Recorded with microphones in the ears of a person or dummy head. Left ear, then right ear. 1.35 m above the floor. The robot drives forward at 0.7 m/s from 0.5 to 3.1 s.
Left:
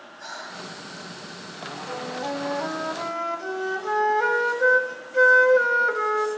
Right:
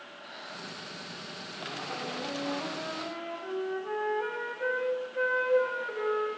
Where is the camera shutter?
No camera shutter in this recording.